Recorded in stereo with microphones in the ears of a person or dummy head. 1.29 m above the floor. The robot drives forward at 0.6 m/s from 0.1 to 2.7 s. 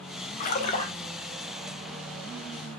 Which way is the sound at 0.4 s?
50° left (ahead or behind).